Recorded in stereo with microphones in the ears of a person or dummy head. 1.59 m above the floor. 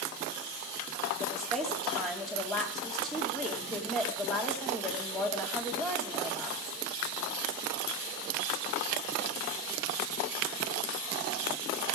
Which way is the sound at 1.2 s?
Centre (ahead or behind).